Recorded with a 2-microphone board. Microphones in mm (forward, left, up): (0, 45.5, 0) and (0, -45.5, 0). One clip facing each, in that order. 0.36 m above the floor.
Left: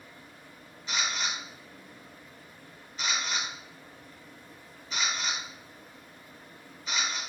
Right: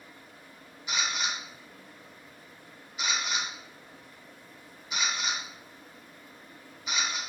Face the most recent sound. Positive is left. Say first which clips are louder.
# even
turn(degrees=-15)  # may be behind; listen again after turning